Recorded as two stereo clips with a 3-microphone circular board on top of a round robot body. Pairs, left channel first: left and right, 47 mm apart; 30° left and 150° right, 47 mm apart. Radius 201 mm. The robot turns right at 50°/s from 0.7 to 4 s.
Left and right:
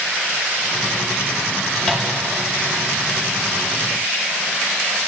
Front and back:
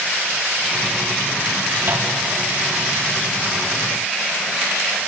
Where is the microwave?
160° left, 2.5 m; by 2.1 s 175° left, 2.5 m.